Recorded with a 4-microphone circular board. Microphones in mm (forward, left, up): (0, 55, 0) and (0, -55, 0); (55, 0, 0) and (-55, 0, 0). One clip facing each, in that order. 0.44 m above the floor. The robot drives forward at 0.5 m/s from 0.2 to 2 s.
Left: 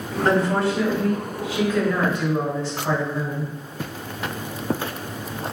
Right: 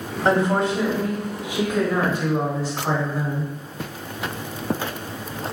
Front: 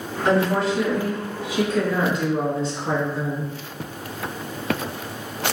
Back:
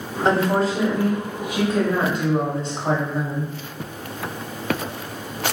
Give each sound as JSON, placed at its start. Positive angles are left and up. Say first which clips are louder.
{"t": 0.2, "sound": "a woman speaking", "louder": "right 1 dB, back 1 dB", "azimuth_deg": -145, "distance_m": 1.4}